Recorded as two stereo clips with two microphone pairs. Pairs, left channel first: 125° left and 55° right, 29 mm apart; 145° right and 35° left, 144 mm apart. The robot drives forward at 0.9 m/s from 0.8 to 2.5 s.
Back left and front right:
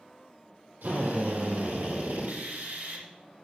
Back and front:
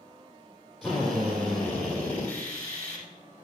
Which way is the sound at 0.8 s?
55° right.